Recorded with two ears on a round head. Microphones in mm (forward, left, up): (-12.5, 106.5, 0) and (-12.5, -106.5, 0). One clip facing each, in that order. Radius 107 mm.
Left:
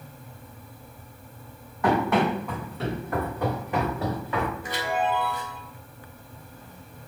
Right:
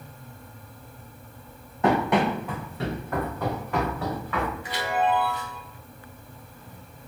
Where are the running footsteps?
25° right (ahead or behind), 1.4 m; by 4.5 s 30° left (ahead or behind), 2 m.